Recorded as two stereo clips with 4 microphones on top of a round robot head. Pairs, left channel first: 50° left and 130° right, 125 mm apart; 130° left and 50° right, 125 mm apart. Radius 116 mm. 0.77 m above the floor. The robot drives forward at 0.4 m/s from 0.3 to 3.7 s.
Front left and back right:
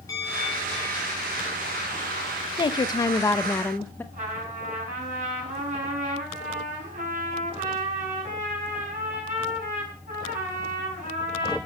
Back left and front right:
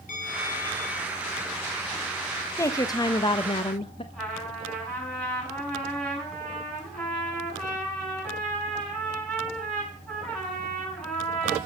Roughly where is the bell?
Behind left.